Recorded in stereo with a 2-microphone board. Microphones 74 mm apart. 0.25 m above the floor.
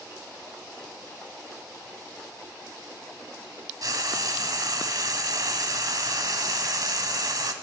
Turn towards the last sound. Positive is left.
turn(degrees=-60)  # may be behind; listen again after turning